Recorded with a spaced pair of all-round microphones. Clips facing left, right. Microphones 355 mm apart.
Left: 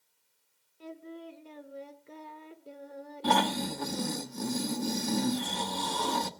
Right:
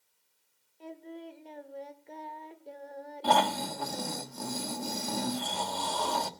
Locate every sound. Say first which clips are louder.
0.8 s singing: even; 15° left (ahead or behind), 1.4 m
3.2 s snoring: left 1 dB; 30° left (ahead or behind), 1.2 m